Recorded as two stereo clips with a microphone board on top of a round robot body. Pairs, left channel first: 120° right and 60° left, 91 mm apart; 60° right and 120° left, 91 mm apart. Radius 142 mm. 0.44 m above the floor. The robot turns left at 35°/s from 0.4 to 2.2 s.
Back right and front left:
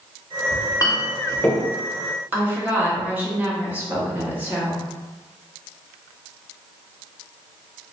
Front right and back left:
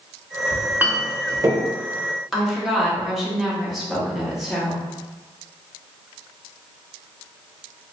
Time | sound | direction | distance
0.5 | a clink | 160° right | 0.7 m
2.3 | a woman speaking | 35° left | 1.3 m